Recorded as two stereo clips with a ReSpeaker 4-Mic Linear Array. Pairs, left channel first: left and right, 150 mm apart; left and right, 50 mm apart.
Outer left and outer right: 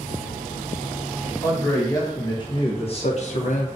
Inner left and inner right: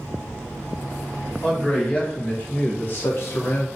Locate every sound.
1.4 s a man speaking: 20° left (ahead or behind), 1.4 m; by 3.7 s 60° left (ahead or behind), 0.6 m